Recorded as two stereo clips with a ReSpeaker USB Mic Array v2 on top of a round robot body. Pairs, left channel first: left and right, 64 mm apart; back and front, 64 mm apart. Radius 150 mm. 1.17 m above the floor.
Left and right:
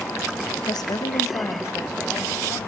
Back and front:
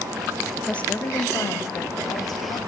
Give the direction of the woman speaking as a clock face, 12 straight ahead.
9 o'clock.